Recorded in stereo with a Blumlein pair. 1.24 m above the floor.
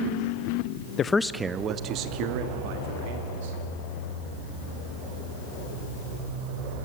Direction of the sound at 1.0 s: 25° left.